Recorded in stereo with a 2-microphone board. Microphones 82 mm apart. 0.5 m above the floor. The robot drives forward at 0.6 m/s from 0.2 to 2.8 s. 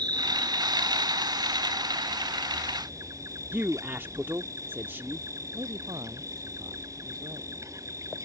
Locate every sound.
0.0 s an insect: 55° right (ahead or behind); by 8.2 s 40° right (ahead or behind)
3.5 s a man speaking: 25° right (ahead or behind)
5.5 s a man speaking: 50° right (ahead or behind)